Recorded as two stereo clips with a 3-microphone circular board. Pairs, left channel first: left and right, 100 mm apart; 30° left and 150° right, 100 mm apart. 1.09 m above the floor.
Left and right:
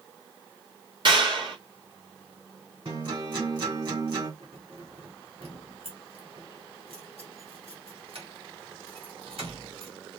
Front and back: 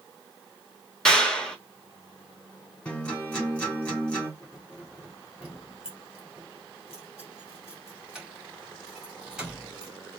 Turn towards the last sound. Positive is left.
turn(degrees=-70)